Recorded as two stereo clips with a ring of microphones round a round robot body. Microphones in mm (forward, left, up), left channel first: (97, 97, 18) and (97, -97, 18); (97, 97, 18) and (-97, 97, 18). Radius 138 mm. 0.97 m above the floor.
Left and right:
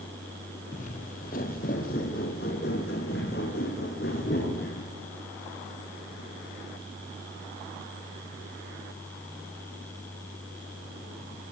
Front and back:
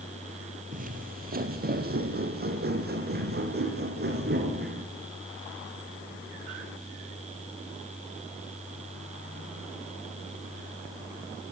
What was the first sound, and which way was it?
Footsteps, 145° left.